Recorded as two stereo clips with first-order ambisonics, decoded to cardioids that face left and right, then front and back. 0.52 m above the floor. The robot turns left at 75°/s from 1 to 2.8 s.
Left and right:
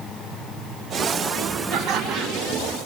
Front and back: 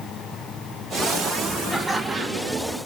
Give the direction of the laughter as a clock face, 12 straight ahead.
3 o'clock.